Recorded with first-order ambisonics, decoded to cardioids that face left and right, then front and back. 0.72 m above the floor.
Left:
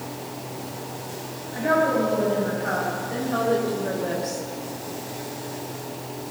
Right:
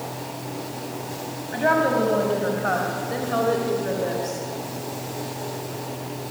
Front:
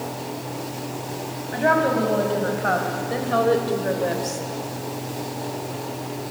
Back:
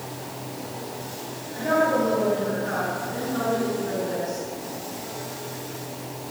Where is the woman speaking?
40° right, 6 m; by 4.4 s 5° left, 3.5 m.